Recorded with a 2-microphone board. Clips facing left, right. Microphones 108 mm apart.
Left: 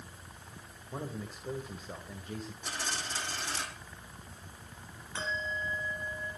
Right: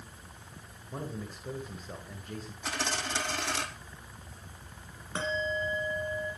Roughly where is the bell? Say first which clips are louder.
Right 5 dB; right.